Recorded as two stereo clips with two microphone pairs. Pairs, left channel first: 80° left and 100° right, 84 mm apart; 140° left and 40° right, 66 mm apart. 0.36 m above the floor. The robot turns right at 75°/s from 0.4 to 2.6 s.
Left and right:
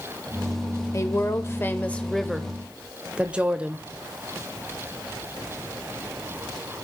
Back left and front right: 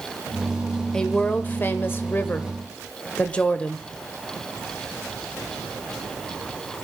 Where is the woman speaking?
65° left, 1.0 m; by 3.9 s 170° right, 1.0 m.